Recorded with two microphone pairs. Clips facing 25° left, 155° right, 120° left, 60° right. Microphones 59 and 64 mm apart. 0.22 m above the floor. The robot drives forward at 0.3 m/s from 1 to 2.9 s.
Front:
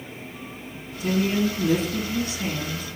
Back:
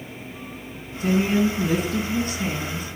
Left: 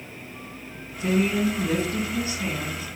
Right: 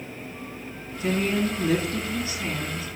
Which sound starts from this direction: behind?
A woman speaking, at 1.0 s.